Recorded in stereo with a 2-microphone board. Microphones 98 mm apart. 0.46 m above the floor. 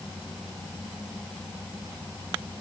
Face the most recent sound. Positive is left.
No sound to turn to.